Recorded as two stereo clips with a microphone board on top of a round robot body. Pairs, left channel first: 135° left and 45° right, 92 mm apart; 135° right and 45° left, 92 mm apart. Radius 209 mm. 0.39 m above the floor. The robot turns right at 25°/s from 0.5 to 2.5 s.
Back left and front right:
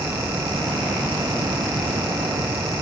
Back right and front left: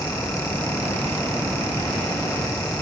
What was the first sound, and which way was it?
Only background noise.